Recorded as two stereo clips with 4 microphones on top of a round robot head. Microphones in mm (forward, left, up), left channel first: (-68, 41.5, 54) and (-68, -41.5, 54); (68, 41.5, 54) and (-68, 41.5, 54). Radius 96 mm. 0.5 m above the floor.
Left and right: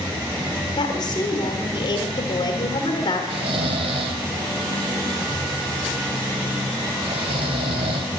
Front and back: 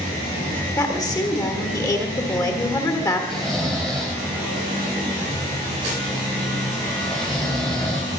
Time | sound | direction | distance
0.8 | a woman speaking | 60° left | 1.5 m
3.3 | snoring | 90° right | 1.0 m